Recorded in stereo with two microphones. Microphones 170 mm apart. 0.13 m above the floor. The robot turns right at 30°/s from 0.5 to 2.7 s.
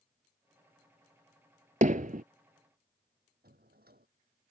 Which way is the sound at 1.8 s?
55° right (ahead or behind).